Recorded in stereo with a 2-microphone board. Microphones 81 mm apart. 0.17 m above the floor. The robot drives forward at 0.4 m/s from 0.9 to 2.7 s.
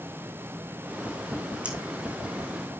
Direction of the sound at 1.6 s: 15° right (ahead or behind).